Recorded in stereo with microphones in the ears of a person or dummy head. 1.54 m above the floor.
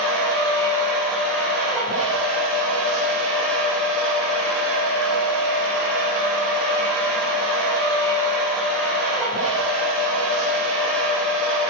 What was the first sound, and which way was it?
A machine running, 85° right.